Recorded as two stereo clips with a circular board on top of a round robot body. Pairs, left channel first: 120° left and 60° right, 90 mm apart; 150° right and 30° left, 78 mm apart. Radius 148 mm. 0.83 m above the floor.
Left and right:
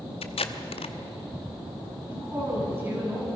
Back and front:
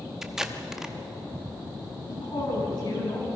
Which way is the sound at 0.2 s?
115° left.